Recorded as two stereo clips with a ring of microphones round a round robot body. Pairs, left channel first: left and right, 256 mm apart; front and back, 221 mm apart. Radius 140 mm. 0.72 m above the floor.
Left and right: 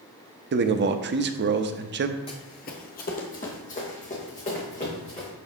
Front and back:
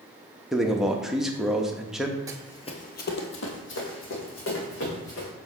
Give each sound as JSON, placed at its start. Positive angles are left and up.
{"t": 0.5, "sound": "a man speaking", "azimuth_deg": -95, "distance_m": 0.7}
{"t": 2.3, "sound": "running footsteps", "azimuth_deg": 130, "distance_m": 0.7}